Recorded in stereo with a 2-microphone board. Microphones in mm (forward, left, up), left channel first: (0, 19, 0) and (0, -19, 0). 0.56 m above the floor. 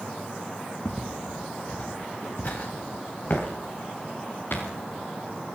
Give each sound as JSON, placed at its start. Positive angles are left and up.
{"t": 0.8, "sound": "footsteps", "side_deg": 40, "distance_m": 4.0}